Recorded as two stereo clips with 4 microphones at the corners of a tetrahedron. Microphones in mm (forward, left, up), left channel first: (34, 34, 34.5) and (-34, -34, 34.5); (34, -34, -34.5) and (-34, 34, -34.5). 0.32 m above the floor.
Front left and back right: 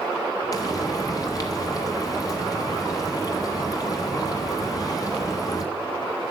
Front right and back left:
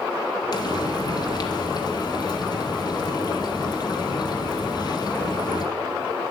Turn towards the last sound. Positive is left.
turn(degrees=-5)